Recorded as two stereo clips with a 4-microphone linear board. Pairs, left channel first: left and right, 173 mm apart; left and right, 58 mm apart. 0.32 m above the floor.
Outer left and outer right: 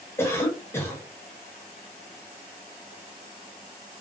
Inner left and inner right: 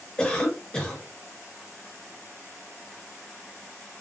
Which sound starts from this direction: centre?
A cough, at 0.2 s.